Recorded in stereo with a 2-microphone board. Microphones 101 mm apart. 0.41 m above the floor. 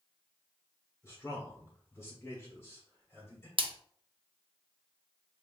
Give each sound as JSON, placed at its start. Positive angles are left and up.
{"t": 1.0, "sound": "a man speaking", "side_deg": 25, "distance_m": 1.2}
{"t": 3.6, "sound": "a splash", "side_deg": -60, "distance_m": 0.6}